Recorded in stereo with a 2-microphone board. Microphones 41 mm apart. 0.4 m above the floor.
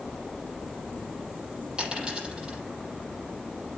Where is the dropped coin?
30° right (ahead or behind), 6.5 m.